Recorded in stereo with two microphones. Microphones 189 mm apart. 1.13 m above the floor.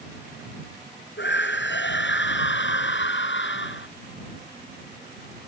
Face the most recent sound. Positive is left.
turn(degrees=85)